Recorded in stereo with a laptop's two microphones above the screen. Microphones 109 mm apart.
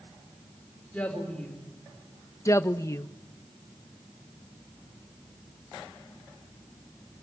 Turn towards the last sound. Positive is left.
turn(degrees=30)  # may be behind; listen again after turning